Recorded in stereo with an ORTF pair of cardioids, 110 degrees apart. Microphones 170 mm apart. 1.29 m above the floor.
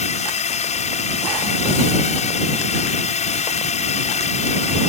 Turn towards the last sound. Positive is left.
turn(degrees=45)